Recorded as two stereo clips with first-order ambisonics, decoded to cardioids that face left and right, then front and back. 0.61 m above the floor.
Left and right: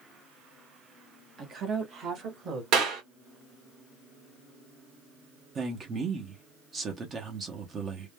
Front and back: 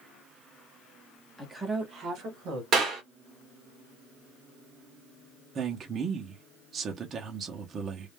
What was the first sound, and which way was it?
A woman speaking, 75° right.